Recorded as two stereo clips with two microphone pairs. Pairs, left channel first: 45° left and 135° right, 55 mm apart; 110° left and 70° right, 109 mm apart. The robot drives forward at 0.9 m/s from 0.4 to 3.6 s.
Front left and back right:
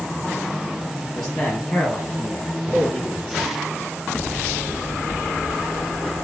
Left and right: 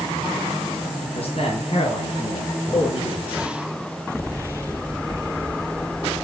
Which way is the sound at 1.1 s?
125° left.